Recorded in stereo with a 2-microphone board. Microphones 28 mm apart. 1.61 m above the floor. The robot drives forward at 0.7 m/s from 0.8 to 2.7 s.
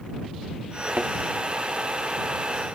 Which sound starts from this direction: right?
A thud, at 1.0 s.